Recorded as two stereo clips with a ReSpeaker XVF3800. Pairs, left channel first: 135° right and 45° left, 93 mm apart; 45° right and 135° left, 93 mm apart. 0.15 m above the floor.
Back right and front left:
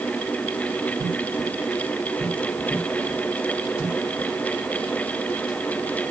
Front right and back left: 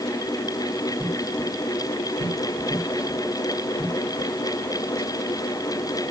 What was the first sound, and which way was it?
Only background noise.